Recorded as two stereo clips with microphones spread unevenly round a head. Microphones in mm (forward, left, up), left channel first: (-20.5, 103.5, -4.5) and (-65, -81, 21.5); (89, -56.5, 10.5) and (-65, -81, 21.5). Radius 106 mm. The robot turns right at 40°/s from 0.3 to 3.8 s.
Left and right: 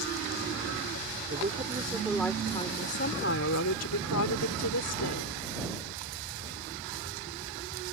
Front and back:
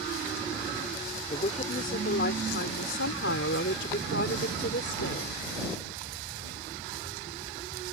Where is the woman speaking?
50° right; by 5.4 s 50° left.